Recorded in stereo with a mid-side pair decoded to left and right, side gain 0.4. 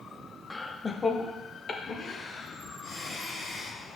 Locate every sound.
0.5 s laughter: 15° left, 0.7 m; by 3.8 s 50° left, 2.5 m